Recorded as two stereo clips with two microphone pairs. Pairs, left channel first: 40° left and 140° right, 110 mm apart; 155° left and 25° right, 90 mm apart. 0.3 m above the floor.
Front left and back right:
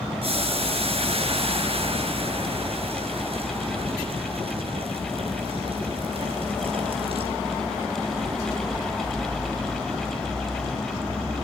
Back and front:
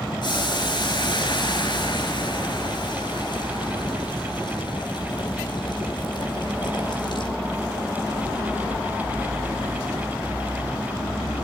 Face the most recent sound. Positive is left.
turn(degrees=-170)